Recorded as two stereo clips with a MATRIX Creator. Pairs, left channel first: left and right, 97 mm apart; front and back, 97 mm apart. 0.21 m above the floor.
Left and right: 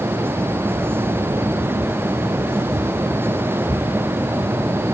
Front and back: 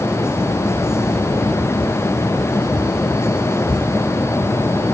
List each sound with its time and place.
Only background noise.